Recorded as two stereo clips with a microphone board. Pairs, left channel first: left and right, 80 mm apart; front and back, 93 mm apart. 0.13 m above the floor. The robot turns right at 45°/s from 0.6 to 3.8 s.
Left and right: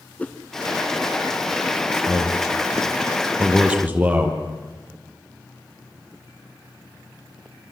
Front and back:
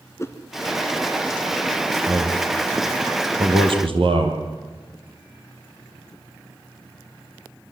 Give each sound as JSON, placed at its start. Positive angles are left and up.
{"t": 0.2, "sound": "a whoosh", "azimuth_deg": 30, "distance_m": 1.3}
{"t": 2.1, "sound": "a man speaking", "azimuth_deg": 120, "distance_m": 4.5}